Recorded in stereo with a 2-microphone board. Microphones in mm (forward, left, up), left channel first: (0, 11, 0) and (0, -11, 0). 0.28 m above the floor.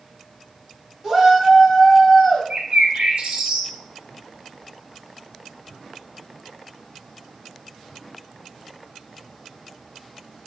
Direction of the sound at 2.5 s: 60° right (ahead or behind).